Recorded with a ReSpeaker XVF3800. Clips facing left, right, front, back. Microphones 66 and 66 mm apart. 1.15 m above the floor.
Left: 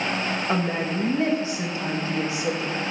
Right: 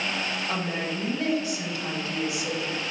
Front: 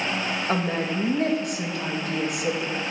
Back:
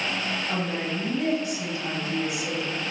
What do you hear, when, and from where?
0.5 s a woman speaking: 30° left, 1.8 m